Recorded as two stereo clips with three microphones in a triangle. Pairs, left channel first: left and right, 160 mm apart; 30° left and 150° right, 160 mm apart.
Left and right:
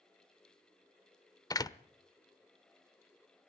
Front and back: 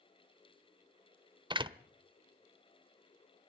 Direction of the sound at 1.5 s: 155° left.